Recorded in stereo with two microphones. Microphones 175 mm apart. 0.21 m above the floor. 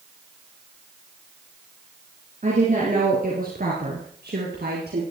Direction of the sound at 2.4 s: 45° right (ahead or behind).